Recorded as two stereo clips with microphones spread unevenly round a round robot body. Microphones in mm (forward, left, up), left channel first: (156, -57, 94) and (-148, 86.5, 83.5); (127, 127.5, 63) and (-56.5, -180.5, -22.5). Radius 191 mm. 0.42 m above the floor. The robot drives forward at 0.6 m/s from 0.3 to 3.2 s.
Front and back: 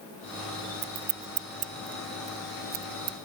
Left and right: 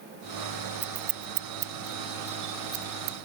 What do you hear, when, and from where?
0.8 s scissors: 150° right; by 3.2 s 170° right